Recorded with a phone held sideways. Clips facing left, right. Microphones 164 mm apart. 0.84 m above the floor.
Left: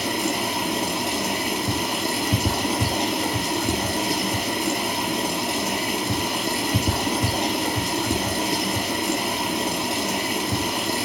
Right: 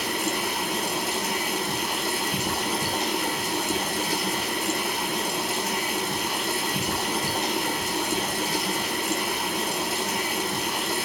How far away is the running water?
About 5.5 m.